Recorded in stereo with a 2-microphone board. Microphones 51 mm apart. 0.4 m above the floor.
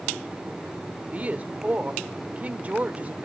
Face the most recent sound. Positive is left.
turn(degrees=-30)  # may be behind; listen again after turning